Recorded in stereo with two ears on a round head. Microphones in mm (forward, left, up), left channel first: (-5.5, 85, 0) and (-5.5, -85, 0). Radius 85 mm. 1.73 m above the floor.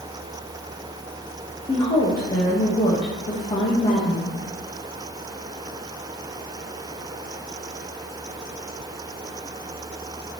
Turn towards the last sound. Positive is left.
turn(degrees=25)  # may be behind; listen again after turning